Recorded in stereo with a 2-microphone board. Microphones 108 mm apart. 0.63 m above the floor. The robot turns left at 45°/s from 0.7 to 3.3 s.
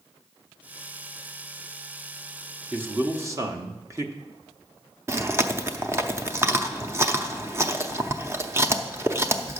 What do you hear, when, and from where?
2.7 s a man speaking: 15° right (ahead or behind), 1.0 m; by 4.1 s 25° right (ahead or behind), 1.0 m
5.1 s chewing: 25° right (ahead or behind), 0.7 m